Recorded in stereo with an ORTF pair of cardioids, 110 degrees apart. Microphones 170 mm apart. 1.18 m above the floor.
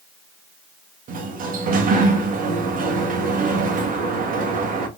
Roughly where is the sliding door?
Ahead right.